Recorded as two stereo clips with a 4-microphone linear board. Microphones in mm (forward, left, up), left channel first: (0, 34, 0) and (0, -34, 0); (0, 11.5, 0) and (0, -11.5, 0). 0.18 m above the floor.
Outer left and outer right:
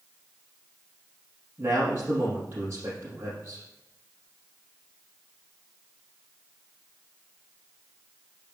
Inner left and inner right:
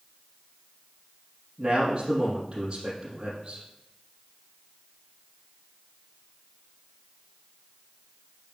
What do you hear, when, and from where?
1.6 s a man speaking: 35° right (ahead or behind), 4.5 m